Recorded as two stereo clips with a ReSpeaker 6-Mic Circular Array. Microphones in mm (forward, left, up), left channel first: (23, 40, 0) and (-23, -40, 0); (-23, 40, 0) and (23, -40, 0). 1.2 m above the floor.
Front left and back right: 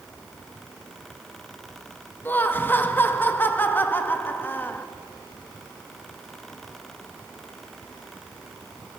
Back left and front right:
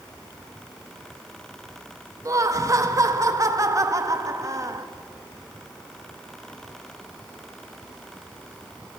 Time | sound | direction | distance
2.2 | laughter | 5° right | 2.0 m